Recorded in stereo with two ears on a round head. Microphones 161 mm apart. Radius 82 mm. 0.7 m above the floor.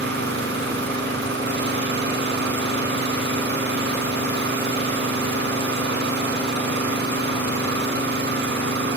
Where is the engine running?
70° right (ahead or behind), 6 m.